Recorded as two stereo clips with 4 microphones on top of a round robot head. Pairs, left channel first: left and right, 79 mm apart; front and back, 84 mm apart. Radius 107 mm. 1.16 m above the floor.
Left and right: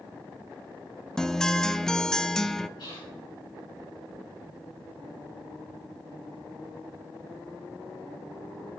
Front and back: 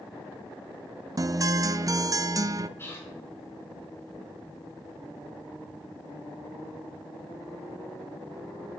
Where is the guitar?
170° left, 0.5 m.